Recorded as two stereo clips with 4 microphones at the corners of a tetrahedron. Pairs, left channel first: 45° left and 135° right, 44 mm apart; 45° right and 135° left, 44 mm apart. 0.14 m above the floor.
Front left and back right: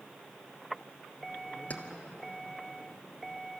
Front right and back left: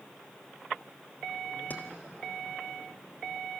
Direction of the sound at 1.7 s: 5° right.